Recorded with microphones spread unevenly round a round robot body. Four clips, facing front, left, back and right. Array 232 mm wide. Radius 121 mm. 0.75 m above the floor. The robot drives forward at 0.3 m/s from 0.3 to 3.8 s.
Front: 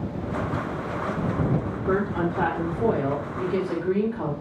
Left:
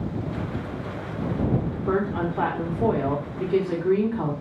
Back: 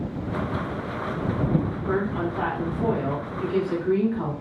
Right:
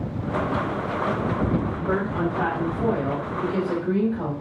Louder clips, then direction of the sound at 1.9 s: Left 1 dB, front 3 dB; 60° left.